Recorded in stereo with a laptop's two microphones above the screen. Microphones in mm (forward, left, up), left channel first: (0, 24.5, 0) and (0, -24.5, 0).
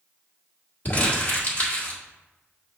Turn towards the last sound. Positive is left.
turn(degrees=35)  # may be behind; listen again after turning